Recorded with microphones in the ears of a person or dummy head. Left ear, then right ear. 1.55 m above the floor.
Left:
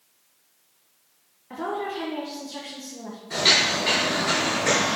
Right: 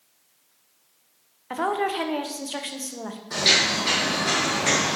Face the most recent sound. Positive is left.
turn(degrees=-5)  # may be behind; listen again after turning